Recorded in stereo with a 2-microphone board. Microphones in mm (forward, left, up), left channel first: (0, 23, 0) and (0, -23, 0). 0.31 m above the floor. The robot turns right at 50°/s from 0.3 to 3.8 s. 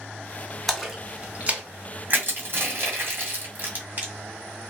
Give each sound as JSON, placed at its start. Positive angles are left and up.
{"t": 0.7, "sound": "a splash", "side_deg": 5, "distance_m": 0.8}
{"t": 2.1, "sound": "crushing", "side_deg": -40, "distance_m": 1.6}